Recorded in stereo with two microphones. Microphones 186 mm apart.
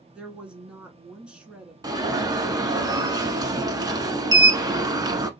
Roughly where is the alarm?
Centre.